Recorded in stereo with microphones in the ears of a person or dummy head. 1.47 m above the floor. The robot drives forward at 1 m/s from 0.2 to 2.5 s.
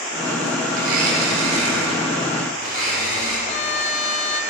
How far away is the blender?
About 1.4 m.